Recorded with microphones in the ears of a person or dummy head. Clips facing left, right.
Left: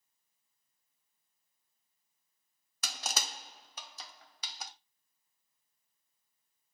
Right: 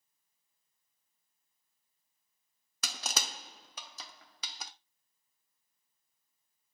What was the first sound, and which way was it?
Crushing, 45° right (ahead or behind).